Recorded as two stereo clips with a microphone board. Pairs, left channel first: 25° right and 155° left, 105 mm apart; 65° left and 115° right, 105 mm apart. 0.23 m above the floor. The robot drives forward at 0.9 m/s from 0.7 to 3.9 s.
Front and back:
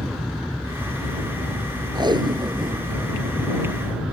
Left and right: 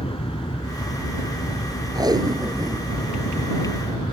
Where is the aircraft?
70° left; by 4.1 s 80° left.